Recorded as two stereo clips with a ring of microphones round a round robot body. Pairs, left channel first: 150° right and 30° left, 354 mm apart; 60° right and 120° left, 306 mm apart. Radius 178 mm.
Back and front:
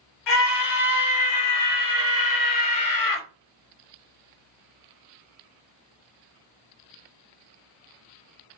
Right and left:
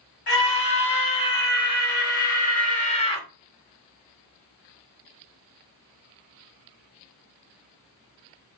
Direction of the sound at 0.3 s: 115° right.